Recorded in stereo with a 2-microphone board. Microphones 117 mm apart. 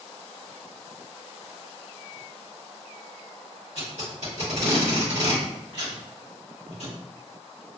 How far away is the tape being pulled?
About 1.4 m.